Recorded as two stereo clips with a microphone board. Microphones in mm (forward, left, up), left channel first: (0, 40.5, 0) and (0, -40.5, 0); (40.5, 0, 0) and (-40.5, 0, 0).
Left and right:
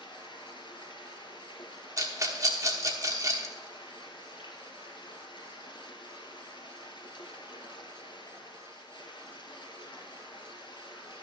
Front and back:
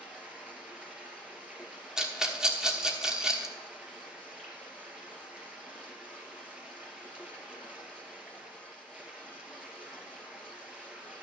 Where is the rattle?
105° right, 1.3 m.